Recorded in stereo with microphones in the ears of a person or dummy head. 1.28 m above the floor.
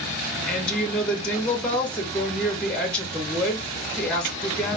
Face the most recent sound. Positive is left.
turn(degrees=5)  # may be behind; listen again after turning